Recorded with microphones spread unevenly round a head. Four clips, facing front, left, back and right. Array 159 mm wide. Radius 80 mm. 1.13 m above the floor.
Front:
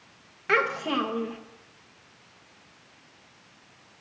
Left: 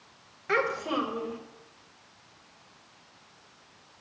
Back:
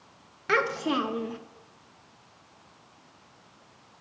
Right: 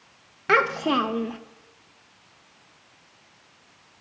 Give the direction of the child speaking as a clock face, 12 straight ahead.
3 o'clock.